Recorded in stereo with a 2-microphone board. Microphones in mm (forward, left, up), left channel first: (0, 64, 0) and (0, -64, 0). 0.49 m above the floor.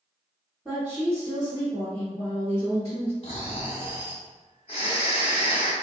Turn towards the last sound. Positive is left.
turn(degrees=50)  # may be behind; listen again after turning